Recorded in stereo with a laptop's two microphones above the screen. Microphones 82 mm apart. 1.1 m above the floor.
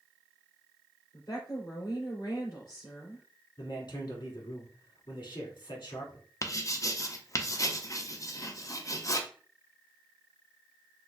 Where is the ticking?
I don't hear ticking.